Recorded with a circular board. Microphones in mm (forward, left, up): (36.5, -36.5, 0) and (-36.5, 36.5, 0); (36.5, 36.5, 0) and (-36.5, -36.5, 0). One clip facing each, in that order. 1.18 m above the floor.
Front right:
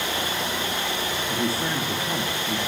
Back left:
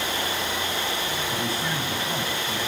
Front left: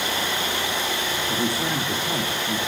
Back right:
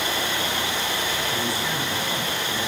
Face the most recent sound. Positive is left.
turn(degrees=10)